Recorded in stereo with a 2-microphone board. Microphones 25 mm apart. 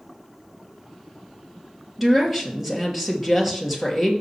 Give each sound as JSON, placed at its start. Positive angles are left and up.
{"t": 2.0, "sound": "a woman speaking", "side_deg": -10, "distance_m": 2.5}